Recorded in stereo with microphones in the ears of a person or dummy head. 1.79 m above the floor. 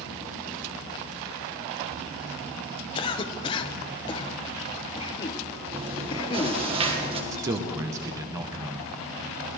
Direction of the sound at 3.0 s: 30° left (ahead or behind).